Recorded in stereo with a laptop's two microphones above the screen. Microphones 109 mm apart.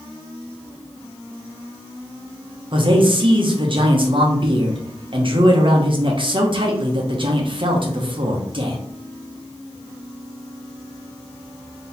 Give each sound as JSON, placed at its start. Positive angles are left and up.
{"t": 2.7, "sound": "a man speaking", "side_deg": -50, "distance_m": 1.1}